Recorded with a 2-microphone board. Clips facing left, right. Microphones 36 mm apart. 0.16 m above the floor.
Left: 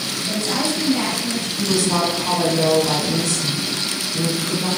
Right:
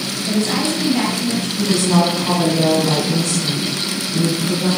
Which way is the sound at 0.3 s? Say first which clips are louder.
Right 4 dB; 40° right (ahead or behind).